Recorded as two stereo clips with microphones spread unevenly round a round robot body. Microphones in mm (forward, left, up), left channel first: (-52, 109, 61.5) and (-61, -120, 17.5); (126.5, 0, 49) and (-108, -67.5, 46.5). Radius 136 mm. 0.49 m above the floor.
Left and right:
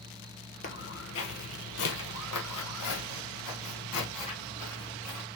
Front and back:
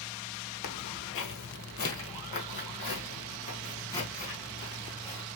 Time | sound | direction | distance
0.6 | footsteps | 40° left | 0.8 m